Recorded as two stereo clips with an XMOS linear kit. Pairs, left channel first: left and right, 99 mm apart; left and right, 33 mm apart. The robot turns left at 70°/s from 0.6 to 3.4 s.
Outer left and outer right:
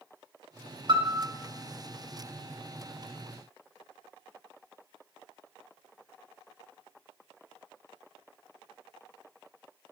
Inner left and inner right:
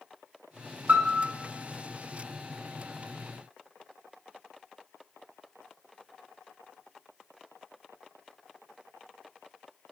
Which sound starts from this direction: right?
A piano, at 0.9 s.